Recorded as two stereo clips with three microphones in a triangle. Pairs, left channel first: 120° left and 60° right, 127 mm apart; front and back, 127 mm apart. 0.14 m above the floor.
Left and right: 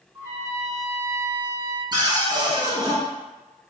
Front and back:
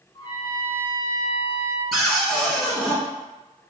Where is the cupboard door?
85° right, 0.9 m.